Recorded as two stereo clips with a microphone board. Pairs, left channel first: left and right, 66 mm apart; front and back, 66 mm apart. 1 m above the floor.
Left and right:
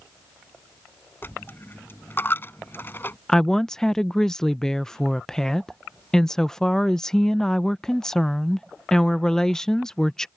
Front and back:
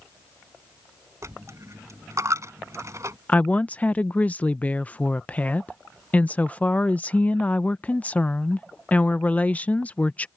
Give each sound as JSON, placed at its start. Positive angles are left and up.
{"t": 1.2, "sound": "a dropped coin", "azimuth_deg": 145}
{"t": 3.3, "sound": "a woman speaking", "azimuth_deg": 20}